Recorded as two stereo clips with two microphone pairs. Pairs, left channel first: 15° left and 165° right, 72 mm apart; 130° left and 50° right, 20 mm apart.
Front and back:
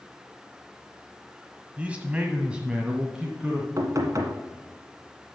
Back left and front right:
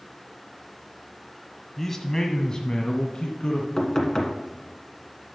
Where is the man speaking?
170° left, 1.1 m; by 3.7 s 115° left, 1.7 m.